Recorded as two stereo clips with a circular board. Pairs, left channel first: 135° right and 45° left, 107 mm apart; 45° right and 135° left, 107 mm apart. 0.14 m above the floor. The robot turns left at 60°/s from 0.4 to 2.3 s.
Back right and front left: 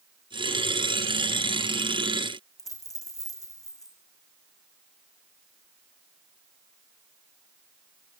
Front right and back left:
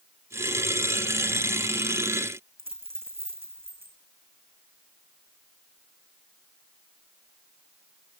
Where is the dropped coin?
165° left, 4 m.